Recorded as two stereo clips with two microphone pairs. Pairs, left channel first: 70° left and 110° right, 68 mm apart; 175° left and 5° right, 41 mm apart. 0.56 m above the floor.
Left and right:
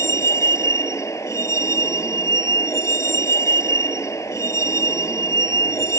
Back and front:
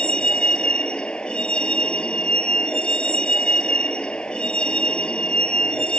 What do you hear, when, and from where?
0.0 s a vehicle: 110° left